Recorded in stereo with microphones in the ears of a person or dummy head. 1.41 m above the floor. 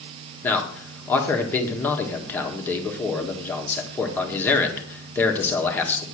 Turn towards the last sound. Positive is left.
turn(degrees=10)  # may be behind; listen again after turning